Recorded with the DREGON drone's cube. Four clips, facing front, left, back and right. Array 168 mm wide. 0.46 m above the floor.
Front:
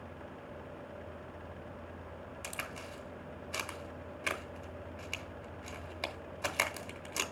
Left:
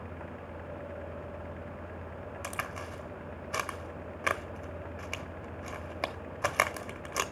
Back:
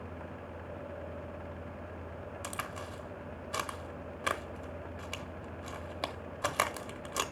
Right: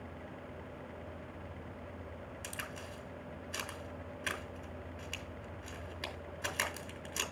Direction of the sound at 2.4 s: 115° left.